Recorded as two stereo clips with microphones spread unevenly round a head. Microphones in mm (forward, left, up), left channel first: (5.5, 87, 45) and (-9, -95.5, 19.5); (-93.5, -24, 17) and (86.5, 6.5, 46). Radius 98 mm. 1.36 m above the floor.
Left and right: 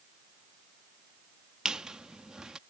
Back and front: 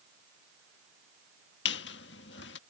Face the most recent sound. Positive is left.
turn(degrees=170)